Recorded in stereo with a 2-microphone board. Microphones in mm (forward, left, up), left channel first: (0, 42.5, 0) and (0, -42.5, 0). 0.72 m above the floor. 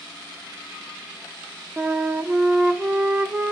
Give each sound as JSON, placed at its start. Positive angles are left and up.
{"t": 1.8, "sound": "a flute", "side_deg": -15, "distance_m": 0.6}